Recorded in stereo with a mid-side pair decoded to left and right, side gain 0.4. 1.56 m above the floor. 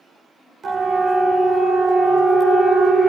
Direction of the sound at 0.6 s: 55° right.